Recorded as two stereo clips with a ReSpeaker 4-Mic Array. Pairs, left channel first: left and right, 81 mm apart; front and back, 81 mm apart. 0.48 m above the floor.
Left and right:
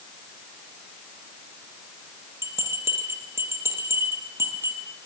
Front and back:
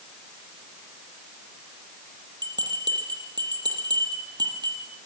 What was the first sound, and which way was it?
A bell, 150° right.